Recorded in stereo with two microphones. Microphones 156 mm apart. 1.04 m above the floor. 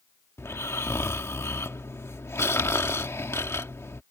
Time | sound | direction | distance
0.4 | snoring | 15° left (ahead or behind) | ?